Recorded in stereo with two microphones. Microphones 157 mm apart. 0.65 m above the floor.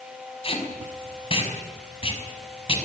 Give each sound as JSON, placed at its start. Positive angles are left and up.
{"t": 0.4, "sound": "tape being pulled", "side_deg": 40, "distance_m": 6.0}